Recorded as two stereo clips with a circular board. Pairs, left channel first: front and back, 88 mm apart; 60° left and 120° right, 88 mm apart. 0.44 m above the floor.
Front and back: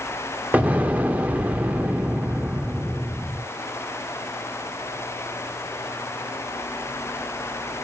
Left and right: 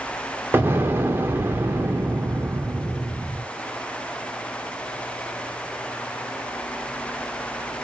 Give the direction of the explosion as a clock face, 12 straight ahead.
4 o'clock.